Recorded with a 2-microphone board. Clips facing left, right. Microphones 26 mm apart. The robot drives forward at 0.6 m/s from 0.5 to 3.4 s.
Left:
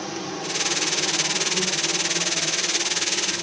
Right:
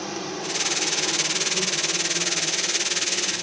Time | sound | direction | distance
0.0 | an insect | 5° right (ahead or behind) | 0.9 m